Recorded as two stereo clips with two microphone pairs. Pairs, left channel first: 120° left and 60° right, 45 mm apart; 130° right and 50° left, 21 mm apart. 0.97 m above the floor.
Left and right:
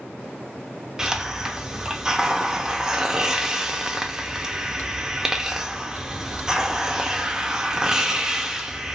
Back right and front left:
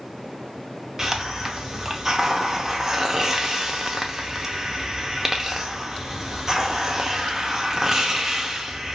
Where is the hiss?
5° left, 0.6 m.